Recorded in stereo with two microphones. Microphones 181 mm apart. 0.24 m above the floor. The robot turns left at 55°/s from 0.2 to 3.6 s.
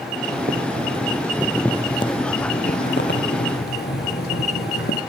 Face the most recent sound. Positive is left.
turn(degrees=70)